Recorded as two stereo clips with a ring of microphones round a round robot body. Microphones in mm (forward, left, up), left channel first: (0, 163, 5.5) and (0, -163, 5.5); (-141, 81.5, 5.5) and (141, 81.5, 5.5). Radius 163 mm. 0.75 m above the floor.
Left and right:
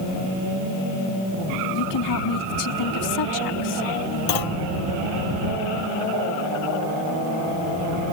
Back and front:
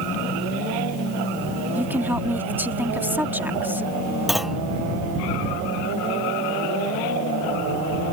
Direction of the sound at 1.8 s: 80° left.